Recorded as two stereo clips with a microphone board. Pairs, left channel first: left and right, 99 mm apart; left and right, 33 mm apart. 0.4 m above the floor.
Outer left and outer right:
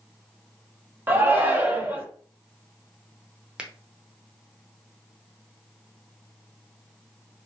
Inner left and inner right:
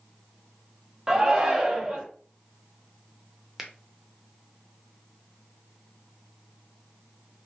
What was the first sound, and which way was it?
A shout, 20° right (ahead or behind).